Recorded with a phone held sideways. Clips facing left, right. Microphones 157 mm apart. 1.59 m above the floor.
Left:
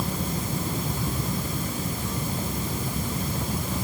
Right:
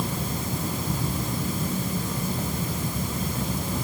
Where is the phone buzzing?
No phone buzzing in this recording.